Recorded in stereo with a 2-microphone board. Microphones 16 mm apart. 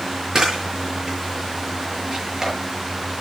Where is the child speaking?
No child speaking in this recording.